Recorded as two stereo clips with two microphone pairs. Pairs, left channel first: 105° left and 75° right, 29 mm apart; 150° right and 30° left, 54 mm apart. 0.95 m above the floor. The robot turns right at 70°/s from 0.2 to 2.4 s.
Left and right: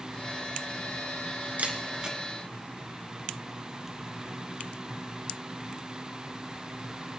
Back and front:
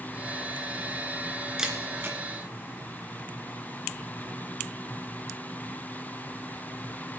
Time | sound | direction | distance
1.6 | a camera shutter | 50° right | 2.5 m